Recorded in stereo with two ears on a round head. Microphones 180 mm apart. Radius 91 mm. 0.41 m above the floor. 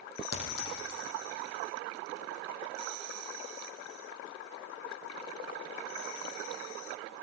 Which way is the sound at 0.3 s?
75° left (ahead or behind).